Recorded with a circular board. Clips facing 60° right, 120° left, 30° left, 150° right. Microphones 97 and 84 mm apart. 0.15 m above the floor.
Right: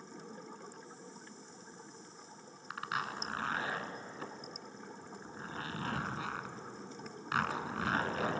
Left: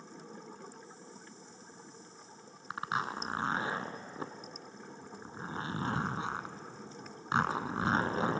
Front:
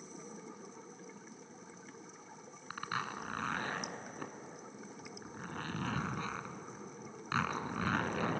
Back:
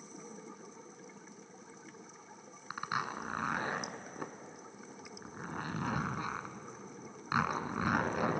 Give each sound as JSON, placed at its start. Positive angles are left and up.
{"t": 2.7, "sound": "a zipper", "azimuth_deg": 150, "distance_m": 0.9}